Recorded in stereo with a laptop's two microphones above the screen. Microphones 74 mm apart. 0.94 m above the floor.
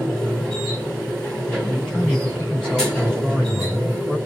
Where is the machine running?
15° left (ahead or behind), 3.5 m.